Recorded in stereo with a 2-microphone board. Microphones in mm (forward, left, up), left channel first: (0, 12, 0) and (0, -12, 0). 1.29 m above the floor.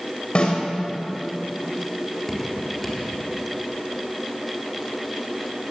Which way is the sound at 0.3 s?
45° left (ahead or behind).